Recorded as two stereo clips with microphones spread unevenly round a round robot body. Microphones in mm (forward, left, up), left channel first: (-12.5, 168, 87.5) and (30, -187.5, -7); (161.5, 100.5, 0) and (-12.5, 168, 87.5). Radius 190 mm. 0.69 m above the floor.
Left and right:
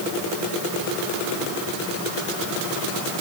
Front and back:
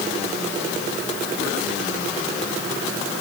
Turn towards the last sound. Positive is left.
No sound to turn to.